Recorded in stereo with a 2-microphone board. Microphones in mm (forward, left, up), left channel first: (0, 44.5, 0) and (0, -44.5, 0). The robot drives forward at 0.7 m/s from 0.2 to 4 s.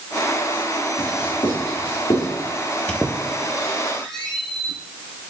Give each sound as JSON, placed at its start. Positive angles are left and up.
{"t": 1.0, "sound": "writing", "side_deg": 80, "distance_m": 5.0}
{"t": 2.9, "sound": "a squeak", "side_deg": 10, "distance_m": 1.3}